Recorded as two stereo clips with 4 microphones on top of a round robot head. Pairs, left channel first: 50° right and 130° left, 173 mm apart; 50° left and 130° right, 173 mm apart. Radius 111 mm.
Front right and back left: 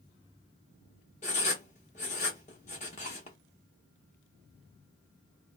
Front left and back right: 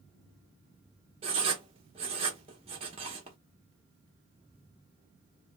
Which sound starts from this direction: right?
Writing, at 1.2 s.